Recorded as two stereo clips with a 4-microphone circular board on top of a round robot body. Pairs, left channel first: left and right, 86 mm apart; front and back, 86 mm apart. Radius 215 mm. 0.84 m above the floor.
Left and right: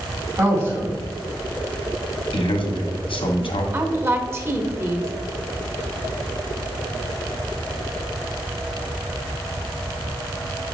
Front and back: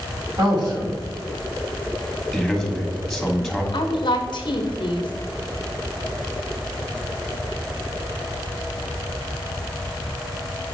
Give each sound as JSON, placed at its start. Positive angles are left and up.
{"t": 0.4, "sound": "a man speaking", "azimuth_deg": -145, "distance_m": 3.5}
{"t": 2.3, "sound": "a man speaking", "azimuth_deg": 85, "distance_m": 1.5}
{"t": 3.7, "sound": "a woman speaking", "azimuth_deg": -25, "distance_m": 1.2}